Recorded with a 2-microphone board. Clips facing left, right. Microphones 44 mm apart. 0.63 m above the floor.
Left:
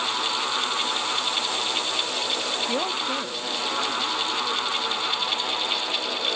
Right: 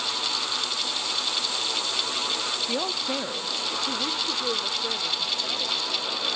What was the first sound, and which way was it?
A man speaking, 15° left (ahead or behind).